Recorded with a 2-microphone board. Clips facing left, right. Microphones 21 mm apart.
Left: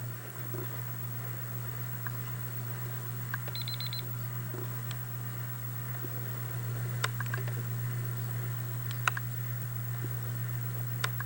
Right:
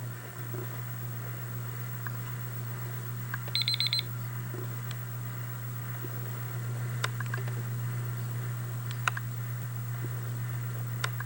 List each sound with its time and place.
3.5 s an alarm clock: 45° right (ahead or behind)